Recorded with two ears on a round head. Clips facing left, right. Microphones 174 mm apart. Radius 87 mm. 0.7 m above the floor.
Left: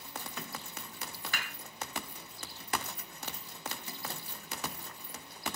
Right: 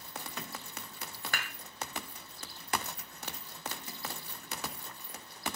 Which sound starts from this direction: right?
Dishes clattering, at 1.3 s.